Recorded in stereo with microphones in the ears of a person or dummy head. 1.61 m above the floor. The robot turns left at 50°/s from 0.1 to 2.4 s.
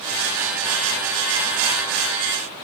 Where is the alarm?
No alarm in this recording.